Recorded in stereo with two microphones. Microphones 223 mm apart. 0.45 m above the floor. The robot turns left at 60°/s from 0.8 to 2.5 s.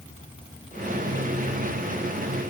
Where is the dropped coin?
I don't hear a dropped coin.